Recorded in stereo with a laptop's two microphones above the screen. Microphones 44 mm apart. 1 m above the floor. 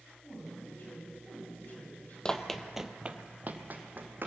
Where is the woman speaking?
45° left (ahead or behind), 6.5 m.